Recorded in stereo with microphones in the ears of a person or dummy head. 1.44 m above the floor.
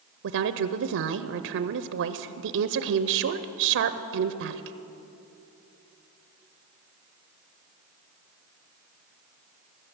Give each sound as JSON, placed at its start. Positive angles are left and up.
{"t": 0.2, "sound": "a woman speaking", "side_deg": -65, "distance_m": 0.5}